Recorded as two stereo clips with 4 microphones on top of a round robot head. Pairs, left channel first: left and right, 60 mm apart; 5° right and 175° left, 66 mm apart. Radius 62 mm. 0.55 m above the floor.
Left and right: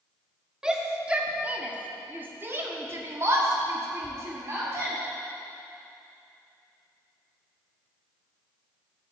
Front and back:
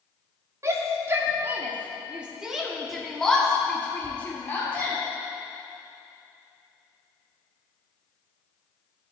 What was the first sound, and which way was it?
A shout, 165° right.